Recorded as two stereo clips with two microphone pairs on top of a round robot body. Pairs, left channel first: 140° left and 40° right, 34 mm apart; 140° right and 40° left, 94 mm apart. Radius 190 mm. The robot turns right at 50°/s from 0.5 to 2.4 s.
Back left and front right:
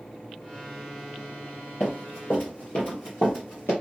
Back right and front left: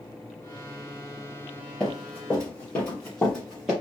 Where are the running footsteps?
135° left, 1.9 m; by 3.7 s 125° left, 1.1 m.